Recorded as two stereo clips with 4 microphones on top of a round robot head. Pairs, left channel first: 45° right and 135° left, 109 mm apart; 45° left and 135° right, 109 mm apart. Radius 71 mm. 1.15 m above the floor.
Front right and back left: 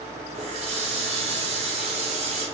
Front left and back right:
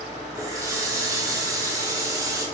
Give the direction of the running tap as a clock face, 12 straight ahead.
7 o'clock.